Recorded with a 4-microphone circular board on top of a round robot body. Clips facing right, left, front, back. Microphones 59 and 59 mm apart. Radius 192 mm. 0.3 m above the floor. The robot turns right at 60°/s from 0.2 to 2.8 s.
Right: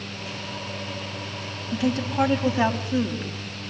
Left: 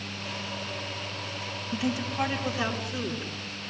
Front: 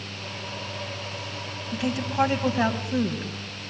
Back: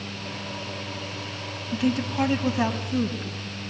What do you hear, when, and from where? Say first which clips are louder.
1.7 s a woman speaking: right 6 dB, back 2 dB; 95° right, 4.5 m; by 3.4 s 30° right, 4.5 m